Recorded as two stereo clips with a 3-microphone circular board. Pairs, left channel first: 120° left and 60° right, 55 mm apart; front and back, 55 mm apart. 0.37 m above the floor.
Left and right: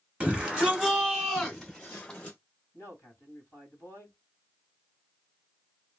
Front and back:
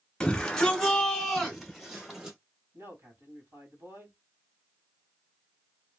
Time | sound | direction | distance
0.2 | a shout | 60° right | 1.5 m
2.7 | a man speaking | 150° left | 2.0 m